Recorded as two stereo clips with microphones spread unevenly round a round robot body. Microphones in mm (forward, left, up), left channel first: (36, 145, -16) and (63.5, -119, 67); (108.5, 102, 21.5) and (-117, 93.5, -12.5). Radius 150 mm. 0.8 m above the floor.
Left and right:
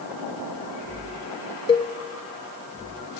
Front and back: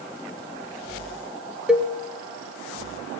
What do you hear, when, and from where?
1.7 s a cowbell: 115° left, 1.0 m